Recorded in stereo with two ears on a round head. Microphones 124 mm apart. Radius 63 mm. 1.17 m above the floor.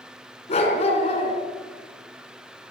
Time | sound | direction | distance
0.5 | a dog barking | 45° left (ahead or behind) | 4.5 m